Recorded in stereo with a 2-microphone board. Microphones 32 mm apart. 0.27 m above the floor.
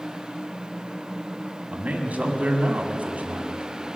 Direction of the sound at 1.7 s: 55° right (ahead or behind).